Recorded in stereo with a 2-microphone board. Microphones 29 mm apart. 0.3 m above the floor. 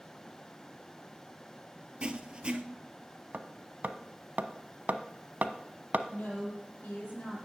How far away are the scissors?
No scissors in this recording.